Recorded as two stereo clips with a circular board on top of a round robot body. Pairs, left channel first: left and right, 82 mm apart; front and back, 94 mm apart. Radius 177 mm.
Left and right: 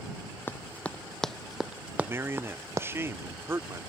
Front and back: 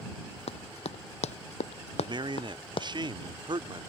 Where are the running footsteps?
20° left; by 2.9 s 35° right.